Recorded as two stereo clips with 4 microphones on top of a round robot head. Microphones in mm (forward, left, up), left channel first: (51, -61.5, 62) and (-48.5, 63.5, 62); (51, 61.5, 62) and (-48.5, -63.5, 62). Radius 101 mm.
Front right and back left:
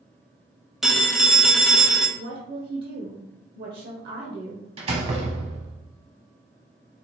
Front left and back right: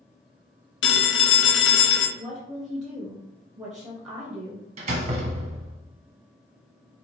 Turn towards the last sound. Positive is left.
turn(degrees=180)